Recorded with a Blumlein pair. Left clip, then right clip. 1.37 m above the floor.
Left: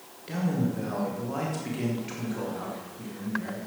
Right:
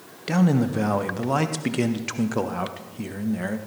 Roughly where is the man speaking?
Ahead right.